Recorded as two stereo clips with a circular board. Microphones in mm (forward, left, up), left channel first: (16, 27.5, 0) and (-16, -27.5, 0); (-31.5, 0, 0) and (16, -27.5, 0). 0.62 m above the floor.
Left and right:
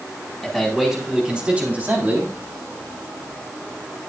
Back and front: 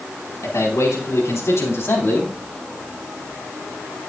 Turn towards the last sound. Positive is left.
turn(degrees=-170)